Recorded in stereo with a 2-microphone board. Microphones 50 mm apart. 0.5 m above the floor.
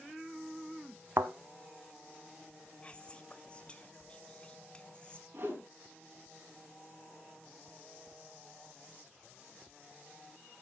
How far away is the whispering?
About 1.2 m.